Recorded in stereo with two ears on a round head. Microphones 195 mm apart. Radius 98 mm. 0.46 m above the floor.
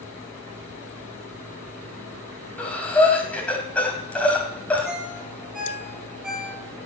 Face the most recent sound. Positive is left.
turn(degrees=0)  # may be behind; listen again after turning